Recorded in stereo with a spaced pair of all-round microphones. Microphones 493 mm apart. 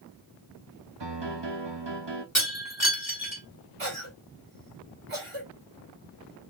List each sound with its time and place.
1.0 s a piano: 55° right (ahead or behind), 0.9 m
2.4 s breaking glass: 35° left (ahead or behind), 3 m
3.8 s a cough: 85° right, 2.5 m